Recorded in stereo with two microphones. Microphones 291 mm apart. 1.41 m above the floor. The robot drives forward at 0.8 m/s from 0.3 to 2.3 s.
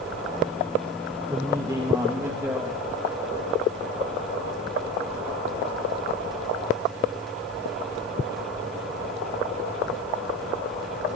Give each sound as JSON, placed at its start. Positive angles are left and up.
{"t": 1.3, "sound": "a woman speaking", "side_deg": -15, "distance_m": 1.8}